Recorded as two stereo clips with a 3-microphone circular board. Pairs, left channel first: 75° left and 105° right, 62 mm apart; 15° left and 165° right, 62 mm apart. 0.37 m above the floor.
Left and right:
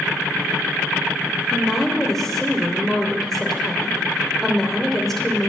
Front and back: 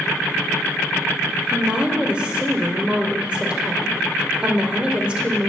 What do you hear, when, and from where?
1.5 s a woman speaking: 150° left, 1.0 m